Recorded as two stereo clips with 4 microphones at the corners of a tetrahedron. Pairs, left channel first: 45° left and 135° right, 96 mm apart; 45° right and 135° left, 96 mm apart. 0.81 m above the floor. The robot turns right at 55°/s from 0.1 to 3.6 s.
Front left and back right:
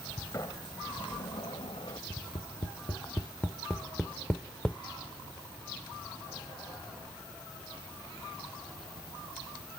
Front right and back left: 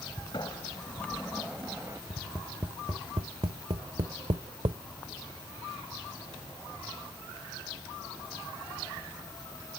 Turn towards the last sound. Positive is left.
turn(degrees=125)